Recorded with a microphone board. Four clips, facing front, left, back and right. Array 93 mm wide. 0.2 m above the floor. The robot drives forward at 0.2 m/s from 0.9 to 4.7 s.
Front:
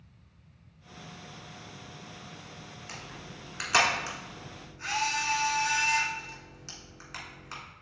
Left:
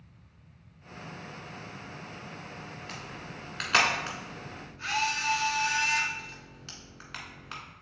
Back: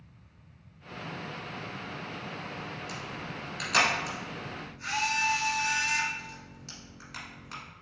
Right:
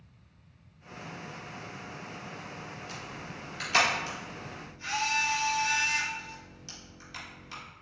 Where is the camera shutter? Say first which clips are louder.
Even, back 6 dB; 60° left, 1.6 m; by 7.6 s 75° left, 1.5 m.